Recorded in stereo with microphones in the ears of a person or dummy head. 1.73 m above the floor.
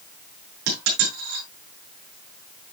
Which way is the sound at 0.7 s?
60° right (ahead or behind).